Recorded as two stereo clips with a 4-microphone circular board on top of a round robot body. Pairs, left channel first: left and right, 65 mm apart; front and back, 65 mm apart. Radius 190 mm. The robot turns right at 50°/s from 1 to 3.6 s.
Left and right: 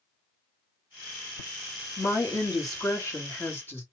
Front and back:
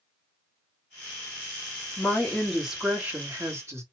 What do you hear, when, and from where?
2.0 s a woman speaking: 60° left, 1.6 m; by 3.8 s 145° left, 1.6 m